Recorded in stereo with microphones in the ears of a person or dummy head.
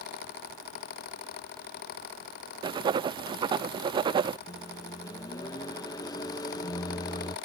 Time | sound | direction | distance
2.6 | writing | 25° right (ahead or behind) | ?
4.5 | a microwave | 20° left (ahead or behind) | ?